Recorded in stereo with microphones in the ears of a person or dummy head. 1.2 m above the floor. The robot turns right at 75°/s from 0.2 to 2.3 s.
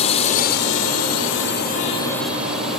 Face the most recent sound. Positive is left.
turn(degrees=-5)  # may be behind; listen again after turning